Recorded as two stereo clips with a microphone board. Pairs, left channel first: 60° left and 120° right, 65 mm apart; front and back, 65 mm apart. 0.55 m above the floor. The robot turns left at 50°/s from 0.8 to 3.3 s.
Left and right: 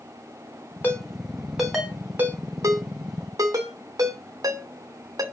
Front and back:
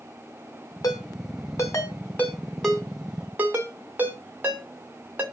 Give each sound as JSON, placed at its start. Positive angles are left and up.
{"t": 0.8, "sound": "a ringtone", "azimuth_deg": 5, "distance_m": 2.5}